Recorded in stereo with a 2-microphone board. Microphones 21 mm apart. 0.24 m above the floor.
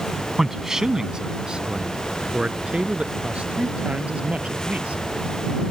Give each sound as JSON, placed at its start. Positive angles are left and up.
{"t": 0.4, "sound": "a man speaking", "side_deg": -15}